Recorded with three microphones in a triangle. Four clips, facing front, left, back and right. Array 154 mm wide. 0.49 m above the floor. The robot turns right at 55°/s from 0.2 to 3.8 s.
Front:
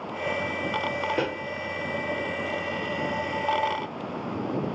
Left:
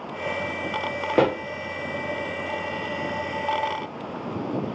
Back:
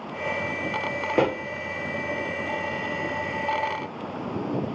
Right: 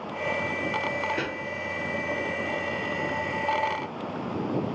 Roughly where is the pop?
Left.